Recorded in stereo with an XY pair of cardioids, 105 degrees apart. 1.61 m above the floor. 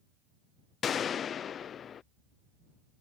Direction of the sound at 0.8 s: 55° left.